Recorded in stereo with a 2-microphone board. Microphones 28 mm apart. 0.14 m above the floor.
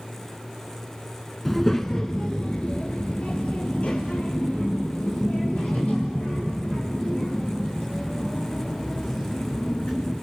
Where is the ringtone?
No ringtone in this recording.